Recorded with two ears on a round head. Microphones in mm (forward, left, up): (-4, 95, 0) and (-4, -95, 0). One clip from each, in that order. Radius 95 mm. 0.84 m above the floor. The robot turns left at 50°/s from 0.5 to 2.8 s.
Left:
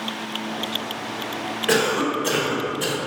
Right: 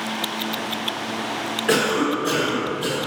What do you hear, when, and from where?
1.7 s a cough: 175° left, 1.2 m; by 3.0 s 120° left, 1.2 m